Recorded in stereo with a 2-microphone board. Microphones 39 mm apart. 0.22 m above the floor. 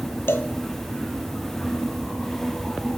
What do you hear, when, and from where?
0.3 s a cowbell: 85° left, 1.6 m